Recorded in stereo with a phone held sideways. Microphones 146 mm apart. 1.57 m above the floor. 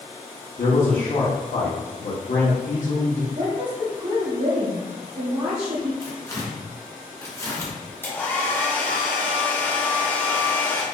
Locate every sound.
0.6 s a man speaking: 70° left (ahead or behind), 0.9 m
3.4 s a woman speaking: 55° right (ahead or behind), 1.1 m
6.0 s tearing paper: 20° left (ahead or behind), 0.8 m
8.0 s a hair dryer: 15° left (ahead or behind), 1.5 m